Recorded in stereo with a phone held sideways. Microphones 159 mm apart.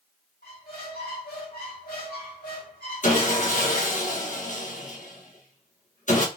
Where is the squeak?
75° left (ahead or behind), 1.7 m.